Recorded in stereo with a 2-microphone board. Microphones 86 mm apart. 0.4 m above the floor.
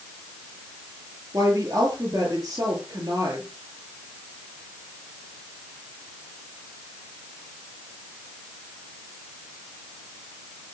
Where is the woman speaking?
45° right (ahead or behind), 8.5 m.